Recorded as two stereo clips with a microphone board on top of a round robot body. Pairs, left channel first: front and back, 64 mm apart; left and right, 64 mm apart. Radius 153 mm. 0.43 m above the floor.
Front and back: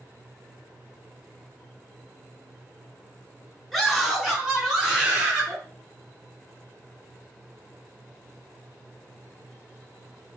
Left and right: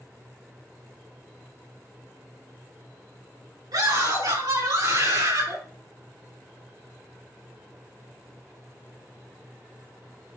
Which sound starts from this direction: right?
A scream, at 3.7 s.